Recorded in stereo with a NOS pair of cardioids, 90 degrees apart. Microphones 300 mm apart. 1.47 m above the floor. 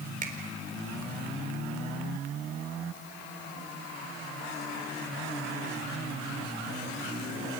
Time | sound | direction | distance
0.2 | a finger snap | 30° right | 4 m